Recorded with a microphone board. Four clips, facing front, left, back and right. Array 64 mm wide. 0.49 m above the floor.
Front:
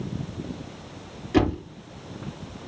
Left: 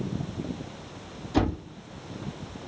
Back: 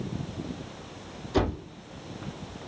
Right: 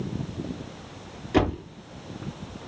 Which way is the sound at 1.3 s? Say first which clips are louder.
Right 3 dB, front 5 dB; 50° right.